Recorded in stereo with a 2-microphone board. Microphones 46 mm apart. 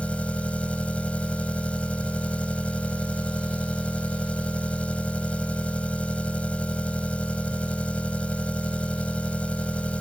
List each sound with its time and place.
0.0 s an engine running: 25° left (ahead or behind)